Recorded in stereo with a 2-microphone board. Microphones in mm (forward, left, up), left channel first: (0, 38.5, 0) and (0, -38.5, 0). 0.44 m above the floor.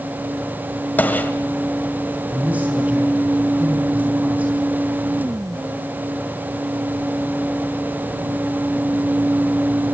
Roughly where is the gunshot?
Left.